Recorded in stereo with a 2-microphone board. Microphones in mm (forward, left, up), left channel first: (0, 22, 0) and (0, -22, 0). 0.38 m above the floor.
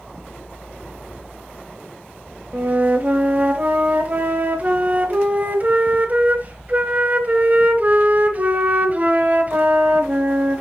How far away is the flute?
About 1.0 m.